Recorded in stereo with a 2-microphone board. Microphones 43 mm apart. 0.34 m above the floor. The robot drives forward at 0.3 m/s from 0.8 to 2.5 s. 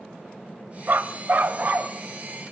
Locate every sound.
0.9 s a dog barking: 55° right (ahead or behind), 0.6 m; by 1.9 s 35° right (ahead or behind), 0.8 m